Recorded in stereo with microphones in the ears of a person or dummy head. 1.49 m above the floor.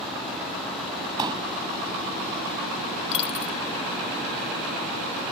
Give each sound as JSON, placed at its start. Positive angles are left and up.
{"t": 1.2, "sound": "a pop", "side_deg": -20}
{"t": 3.1, "sound": "a dropped coin", "side_deg": 35}